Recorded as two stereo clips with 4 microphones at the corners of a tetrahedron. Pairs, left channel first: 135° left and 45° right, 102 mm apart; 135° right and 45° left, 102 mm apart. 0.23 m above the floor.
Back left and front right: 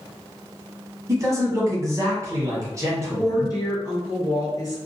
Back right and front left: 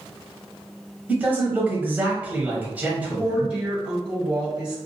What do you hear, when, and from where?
1.1 s a man speaking: 20° right, 1.1 m
3.2 s a woman speaking: 120° left, 1.7 m